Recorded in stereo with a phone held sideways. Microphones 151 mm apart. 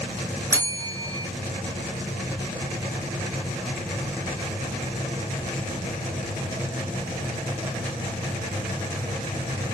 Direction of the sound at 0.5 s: 20° right (ahead or behind).